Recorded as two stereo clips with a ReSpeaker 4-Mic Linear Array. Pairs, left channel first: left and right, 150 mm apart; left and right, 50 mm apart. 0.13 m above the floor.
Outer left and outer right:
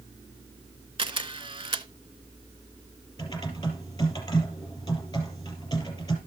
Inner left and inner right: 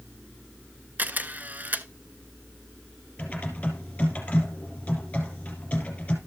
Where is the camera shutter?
35° right (ahead or behind), 0.6 m.